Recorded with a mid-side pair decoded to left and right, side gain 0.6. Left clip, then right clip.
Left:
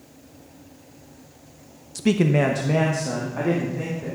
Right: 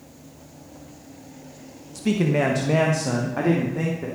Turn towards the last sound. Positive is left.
turn(degrees=-30)